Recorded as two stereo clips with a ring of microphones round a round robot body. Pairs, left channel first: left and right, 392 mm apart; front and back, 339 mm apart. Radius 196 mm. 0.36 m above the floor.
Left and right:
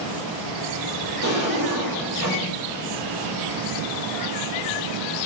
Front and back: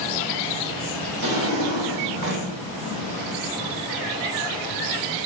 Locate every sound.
1.2 s a drawer: 140° left, 1.2 m